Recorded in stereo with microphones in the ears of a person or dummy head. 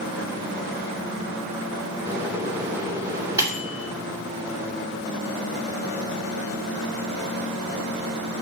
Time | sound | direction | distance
2.1 | a microwave | 20° right (ahead or behind) | 2.5 m